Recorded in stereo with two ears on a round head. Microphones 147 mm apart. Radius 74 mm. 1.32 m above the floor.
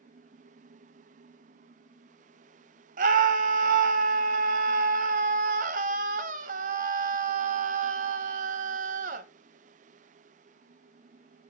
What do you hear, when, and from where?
3.0 s a scream: 50° right (ahead or behind), 1.0 m